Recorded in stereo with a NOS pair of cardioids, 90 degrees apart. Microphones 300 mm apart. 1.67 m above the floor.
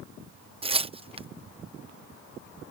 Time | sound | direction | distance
0.6 | tearing paper | 20° right | ?